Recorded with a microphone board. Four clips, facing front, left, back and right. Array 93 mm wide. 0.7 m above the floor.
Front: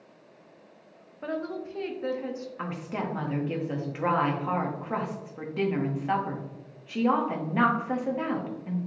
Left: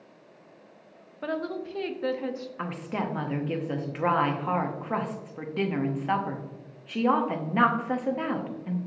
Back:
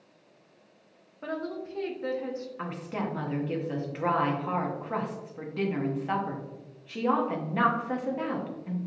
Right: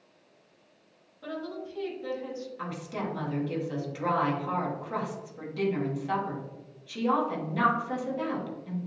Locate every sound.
1.2 s a woman speaking: 85° left, 0.6 m
2.6 s a woman speaking: 80° left, 0.7 m